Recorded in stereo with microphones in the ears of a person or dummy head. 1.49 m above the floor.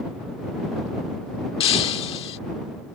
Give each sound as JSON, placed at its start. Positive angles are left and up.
{"t": 1.6, "sound": "breaking glass", "side_deg": 25}